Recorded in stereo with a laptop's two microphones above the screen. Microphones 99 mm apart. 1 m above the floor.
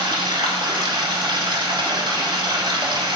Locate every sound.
0.0 s running water: 50° right (ahead or behind), 2.5 m